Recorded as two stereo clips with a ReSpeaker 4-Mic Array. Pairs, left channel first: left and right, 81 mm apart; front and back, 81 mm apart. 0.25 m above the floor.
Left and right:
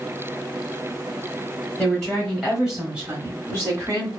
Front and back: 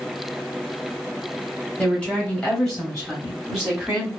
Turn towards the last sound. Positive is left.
turn(degrees=-105)